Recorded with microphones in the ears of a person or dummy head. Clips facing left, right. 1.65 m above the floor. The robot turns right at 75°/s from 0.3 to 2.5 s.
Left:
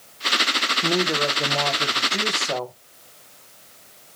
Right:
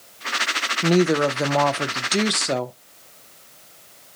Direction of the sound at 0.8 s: 155° right.